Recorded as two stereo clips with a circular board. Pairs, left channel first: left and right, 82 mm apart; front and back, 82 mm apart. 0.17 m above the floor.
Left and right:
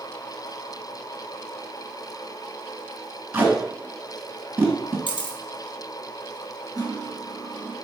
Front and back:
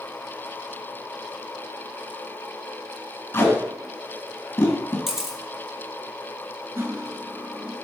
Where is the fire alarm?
No fire alarm in this recording.